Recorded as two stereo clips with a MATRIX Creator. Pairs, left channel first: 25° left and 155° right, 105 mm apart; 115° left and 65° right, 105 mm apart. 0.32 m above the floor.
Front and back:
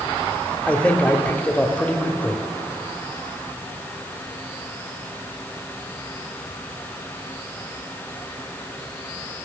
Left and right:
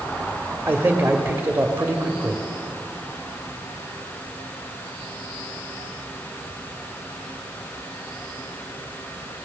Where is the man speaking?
30° right, 1.3 m.